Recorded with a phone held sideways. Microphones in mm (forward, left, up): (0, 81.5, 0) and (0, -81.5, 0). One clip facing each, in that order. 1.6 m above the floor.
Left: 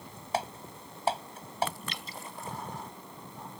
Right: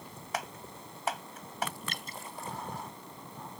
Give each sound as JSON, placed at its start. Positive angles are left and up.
{"t": 0.3, "sound": "typing on a keyboard", "side_deg": 30}
{"t": 1.9, "sound": "dripping", "side_deg": -50}